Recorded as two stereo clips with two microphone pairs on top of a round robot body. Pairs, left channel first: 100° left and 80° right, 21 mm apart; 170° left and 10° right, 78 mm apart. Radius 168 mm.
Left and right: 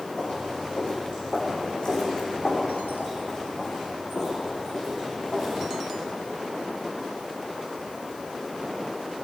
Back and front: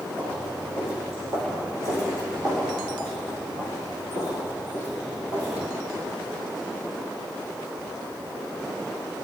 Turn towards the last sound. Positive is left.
turn(degrees=25)